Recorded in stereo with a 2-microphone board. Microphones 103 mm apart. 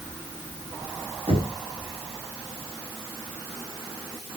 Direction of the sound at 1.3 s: 70° right (ahead or behind).